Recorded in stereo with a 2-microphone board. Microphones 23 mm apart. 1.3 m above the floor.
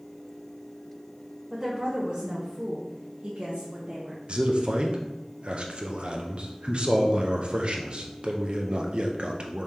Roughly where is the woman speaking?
Right.